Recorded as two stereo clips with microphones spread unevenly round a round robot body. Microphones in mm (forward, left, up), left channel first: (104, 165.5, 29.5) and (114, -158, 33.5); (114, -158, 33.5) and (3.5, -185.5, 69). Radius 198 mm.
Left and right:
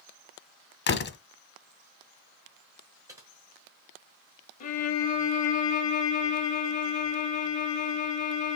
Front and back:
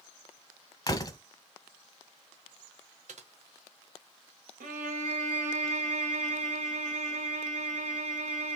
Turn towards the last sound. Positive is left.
turn(degrees=160)